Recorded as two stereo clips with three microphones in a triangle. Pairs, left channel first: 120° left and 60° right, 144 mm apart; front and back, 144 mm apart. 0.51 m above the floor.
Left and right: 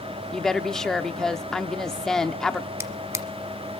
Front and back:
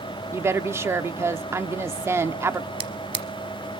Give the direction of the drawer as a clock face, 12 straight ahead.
4 o'clock.